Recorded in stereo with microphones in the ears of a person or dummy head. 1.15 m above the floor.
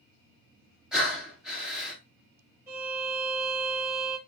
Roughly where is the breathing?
Centre.